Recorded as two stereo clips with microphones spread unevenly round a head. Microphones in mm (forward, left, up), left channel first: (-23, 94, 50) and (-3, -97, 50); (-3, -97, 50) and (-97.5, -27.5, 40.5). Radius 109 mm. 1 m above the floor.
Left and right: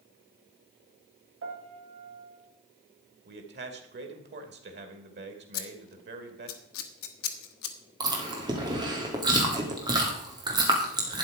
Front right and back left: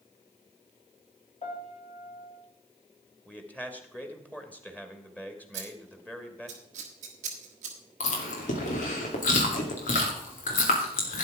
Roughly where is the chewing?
Ahead.